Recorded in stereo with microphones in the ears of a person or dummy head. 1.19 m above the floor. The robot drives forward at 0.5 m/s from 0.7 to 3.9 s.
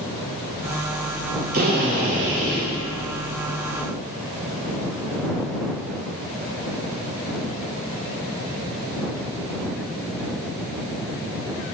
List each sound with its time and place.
1.5 s a drill: 40° right (ahead or behind), 1.3 m; by 2.6 s 30° right (ahead or behind), 1.7 m